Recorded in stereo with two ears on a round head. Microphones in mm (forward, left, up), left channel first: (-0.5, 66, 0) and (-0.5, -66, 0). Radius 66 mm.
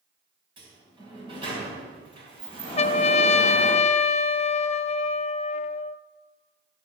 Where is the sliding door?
35° right (ahead or behind), 4 m.